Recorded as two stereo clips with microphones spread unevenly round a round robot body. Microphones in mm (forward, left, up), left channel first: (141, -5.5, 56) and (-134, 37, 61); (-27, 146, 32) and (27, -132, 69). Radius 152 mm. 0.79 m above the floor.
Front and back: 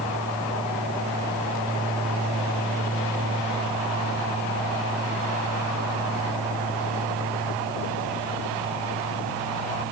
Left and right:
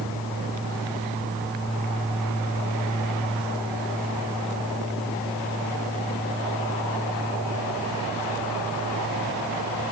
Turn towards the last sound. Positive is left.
No sound to turn to.